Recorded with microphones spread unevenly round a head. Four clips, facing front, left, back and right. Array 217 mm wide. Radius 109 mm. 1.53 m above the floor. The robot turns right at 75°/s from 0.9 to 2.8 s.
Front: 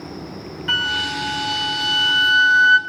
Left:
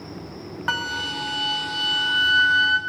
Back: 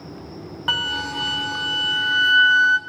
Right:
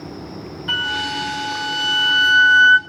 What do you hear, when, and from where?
0.7 s a flute: 150° left, 0.6 m; by 2.8 s 70° right, 0.6 m